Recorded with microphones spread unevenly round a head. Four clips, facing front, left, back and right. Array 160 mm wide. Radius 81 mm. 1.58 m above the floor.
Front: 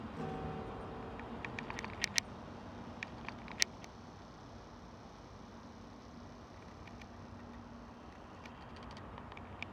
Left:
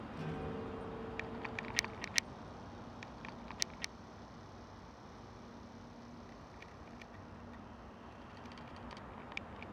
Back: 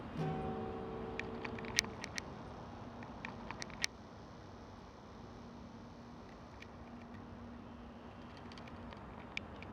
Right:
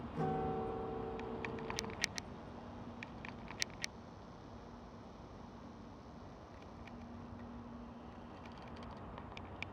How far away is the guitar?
About 3.5 m.